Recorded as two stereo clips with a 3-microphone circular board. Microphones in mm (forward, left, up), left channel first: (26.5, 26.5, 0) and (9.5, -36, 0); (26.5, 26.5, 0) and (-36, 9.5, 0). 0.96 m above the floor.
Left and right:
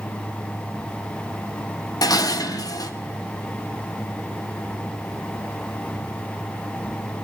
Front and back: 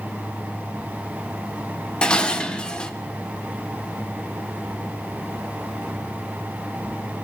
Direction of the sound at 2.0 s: 90° left.